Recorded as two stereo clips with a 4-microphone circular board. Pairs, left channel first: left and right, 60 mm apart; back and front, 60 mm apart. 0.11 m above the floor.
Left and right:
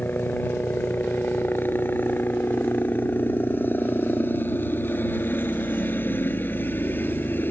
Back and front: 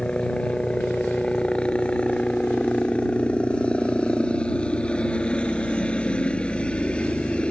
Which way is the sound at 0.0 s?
115° left.